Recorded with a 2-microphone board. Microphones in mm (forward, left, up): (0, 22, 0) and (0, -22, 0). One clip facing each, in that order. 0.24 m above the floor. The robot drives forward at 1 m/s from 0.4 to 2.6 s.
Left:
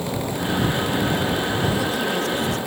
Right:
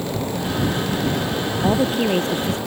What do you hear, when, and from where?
1.6 s a woman speaking: 35° right (ahead or behind); by 2.6 s 30° right (ahead or behind)